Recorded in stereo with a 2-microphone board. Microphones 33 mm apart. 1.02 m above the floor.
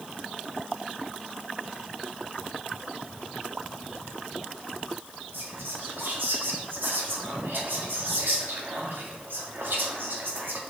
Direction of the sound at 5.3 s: 85° right.